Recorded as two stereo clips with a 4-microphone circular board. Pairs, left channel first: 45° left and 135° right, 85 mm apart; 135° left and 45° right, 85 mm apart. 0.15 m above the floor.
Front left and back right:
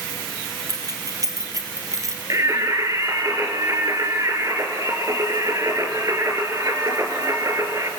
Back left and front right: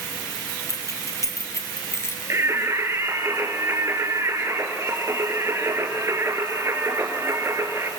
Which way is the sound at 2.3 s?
95° right.